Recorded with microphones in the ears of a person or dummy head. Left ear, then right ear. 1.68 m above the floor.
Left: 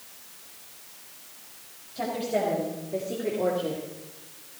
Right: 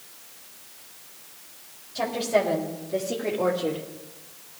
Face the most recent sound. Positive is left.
turn(degrees=-75)  # may be behind; listen again after turning